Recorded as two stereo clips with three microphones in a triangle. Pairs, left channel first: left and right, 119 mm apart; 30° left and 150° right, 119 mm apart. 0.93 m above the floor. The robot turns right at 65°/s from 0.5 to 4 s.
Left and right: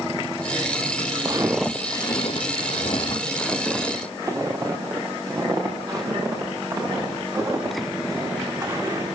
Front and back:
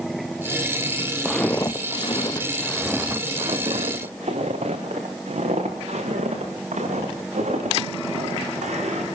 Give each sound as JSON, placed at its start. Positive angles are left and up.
{"t": 1.2, "sound": "footsteps", "azimuth_deg": -75, "distance_m": 1.0}